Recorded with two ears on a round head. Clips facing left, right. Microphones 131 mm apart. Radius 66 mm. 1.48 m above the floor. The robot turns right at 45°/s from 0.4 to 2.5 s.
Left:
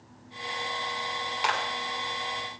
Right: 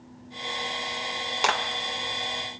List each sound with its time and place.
1.4 s a clap: 55° right (ahead or behind), 1.4 m; by 1.6 s 60° right (ahead or behind), 1.4 m